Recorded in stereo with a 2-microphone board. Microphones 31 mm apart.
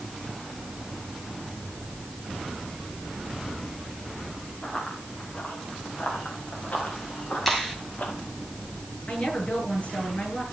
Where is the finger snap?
Centre (ahead or behind), 6.5 m.